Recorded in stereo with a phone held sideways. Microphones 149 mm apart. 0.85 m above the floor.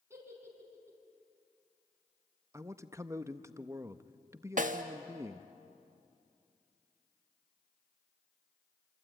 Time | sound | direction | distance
0.1 | a giggle | 20° right (ahead or behind) | 5 m
2.5 | a man speaking | 20° right (ahead or behind) | 0.8 m
4.6 | a snare drum | 60° right (ahead or behind) | 1.4 m